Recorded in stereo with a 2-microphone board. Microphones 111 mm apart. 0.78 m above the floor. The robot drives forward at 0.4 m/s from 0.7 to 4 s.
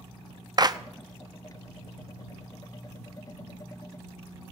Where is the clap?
35° right (ahead or behind), 0.5 m.